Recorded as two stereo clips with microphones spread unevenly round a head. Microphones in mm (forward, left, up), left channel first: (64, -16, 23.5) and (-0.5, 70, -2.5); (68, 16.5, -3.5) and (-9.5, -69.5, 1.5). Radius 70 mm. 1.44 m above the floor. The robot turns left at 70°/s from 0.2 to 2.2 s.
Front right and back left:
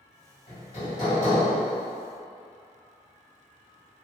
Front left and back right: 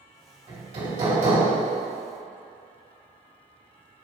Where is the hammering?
105° right, 1.9 m; by 1.5 s 175° right, 1.9 m.